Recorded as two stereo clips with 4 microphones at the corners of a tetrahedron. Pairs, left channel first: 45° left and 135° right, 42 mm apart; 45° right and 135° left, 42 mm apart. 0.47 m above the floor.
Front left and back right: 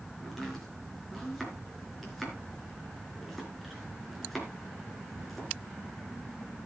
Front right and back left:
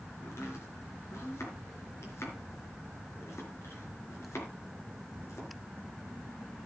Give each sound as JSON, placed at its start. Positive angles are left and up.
{"t": 0.2, "sound": "chopping", "azimuth_deg": -45, "distance_m": 4.0}